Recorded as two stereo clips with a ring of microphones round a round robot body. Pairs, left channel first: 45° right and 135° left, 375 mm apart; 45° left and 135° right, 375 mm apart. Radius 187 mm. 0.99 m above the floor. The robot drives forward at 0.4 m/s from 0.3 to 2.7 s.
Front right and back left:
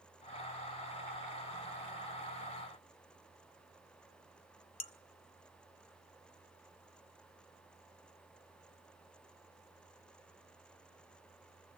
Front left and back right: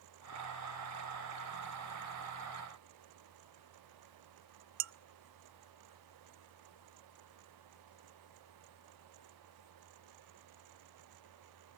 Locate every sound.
4.8 s dishes clattering: 120° right, 0.5 m